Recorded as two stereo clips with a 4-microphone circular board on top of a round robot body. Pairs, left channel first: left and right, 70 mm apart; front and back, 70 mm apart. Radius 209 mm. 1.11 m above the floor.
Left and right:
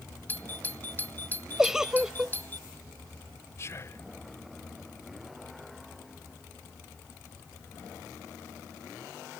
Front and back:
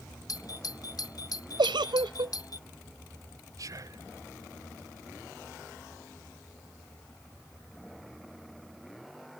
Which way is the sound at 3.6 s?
140° left.